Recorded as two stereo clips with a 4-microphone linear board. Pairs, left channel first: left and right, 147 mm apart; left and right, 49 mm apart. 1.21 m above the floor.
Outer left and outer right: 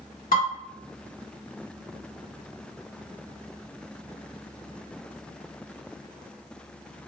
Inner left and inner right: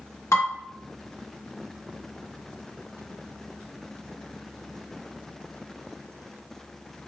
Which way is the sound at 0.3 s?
80° left.